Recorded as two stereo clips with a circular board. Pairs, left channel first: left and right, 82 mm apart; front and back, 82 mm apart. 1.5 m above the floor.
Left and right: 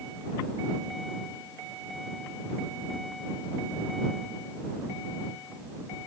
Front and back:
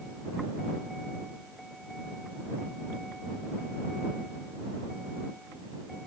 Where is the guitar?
No guitar in this recording.